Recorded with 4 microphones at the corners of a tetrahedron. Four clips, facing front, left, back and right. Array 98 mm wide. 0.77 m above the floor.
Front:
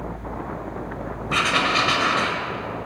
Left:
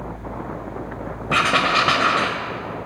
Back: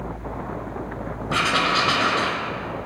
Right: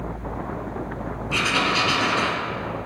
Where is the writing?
100° left, 1.5 m.